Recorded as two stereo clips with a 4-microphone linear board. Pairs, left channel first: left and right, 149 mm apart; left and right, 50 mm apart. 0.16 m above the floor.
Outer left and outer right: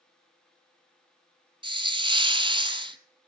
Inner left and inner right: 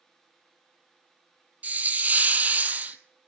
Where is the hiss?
35° right (ahead or behind), 0.7 m.